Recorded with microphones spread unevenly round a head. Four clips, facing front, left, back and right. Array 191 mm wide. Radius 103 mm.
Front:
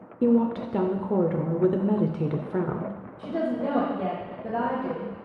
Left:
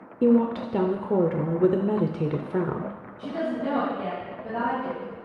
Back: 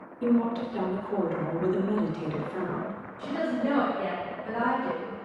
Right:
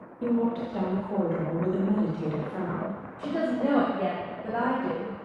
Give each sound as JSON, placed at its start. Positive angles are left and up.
{"t": 0.2, "sound": "a woman speaking", "azimuth_deg": 80, "distance_m": 0.6}
{"t": 3.2, "sound": "a woman speaking", "azimuth_deg": -40, "distance_m": 2.0}